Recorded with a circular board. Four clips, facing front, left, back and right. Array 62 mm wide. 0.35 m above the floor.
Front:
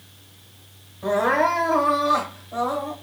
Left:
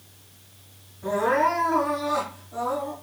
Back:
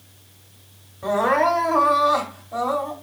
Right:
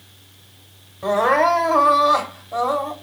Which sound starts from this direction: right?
Crying, at 1.0 s.